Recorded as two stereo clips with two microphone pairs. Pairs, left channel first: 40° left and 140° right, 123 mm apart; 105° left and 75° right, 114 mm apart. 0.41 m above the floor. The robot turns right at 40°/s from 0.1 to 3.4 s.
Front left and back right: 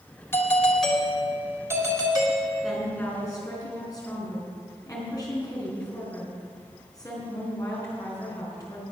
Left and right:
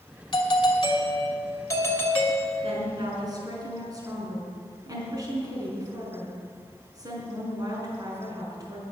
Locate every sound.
0.3 s a doorbell: 105° left, 2.5 m; by 2.9 s 155° right, 2.5 m
2.6 s a woman speaking: 50° right, 4.5 m; by 8.8 s 20° right, 4.5 m